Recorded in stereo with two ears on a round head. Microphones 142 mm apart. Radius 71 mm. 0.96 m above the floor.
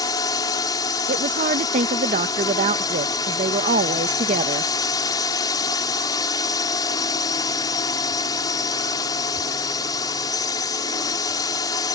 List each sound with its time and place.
0.0 s a drone: 25° left (ahead or behind)
1.1 s a woman speaking: 50° right (ahead or behind)